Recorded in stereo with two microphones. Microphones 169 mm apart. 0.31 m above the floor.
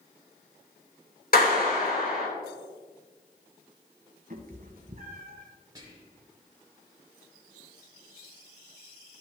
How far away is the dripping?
No dripping in this recording.